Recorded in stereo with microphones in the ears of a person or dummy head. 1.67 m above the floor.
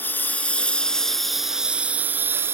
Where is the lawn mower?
15° left (ahead or behind); by 2.5 s 10° right (ahead or behind).